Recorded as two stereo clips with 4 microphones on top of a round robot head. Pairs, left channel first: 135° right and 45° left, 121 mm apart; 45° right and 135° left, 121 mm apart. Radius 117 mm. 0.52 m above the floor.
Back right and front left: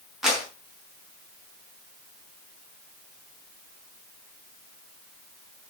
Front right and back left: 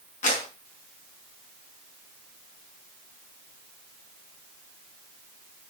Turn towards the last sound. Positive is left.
turn(degrees=-40)